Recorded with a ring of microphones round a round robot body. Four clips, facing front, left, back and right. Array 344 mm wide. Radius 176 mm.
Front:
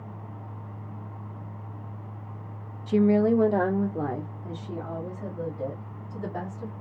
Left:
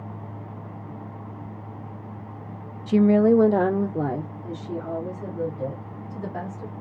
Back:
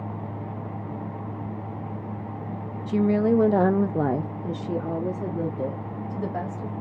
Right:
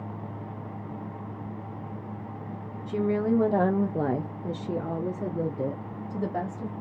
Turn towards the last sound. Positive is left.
turn(degrees=-125)